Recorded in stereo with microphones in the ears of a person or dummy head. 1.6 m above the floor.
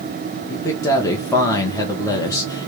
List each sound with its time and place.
0.5 s a man speaking: 20° left (ahead or behind), 0.9 m